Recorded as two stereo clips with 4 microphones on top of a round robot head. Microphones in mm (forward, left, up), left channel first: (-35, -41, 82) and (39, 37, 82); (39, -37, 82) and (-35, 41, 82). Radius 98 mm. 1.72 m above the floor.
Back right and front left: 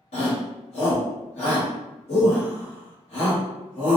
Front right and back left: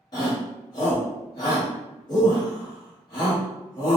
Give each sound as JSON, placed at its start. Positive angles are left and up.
{"t": 0.1, "sound": "a shout", "azimuth_deg": -100, "distance_m": 1.1}